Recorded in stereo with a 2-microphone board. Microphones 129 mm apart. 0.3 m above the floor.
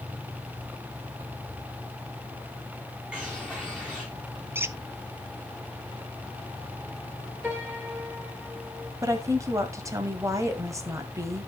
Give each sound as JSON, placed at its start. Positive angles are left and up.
{"t": 3.1, "sound": "a bird", "side_deg": -10, "distance_m": 4.0}
{"t": 4.5, "sound": "a squeak", "side_deg": -15, "distance_m": 0.6}
{"t": 7.4, "sound": "a piano", "side_deg": -15, "distance_m": 4.0}
{"t": 9.0, "sound": "a woman speaking", "side_deg": -25, "distance_m": 1.7}